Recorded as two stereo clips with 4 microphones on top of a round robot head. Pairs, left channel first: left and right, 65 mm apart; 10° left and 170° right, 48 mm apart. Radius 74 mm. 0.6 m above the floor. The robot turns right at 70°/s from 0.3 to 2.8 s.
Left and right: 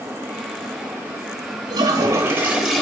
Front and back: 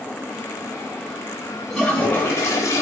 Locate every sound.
1.7 s a toilet flushing: 70° right, 1.1 m; by 2.8 s 5° left, 1.1 m